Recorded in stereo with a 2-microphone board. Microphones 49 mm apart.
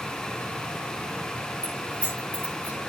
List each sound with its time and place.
1.6 s keys jangling: 25° left (ahead or behind), 9.5 m; by 2.8 s 30° left (ahead or behind), 9 m